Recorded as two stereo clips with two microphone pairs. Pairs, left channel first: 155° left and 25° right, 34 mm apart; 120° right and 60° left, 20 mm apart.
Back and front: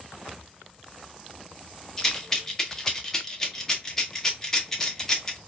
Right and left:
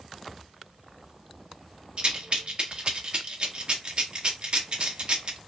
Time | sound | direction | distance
2.0 | a rattle | 80° left | 1.0 m